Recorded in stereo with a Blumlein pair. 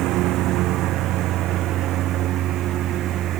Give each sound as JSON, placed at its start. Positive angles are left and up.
{"t": 0.0, "sound": "a lawn mower", "azimuth_deg": -40}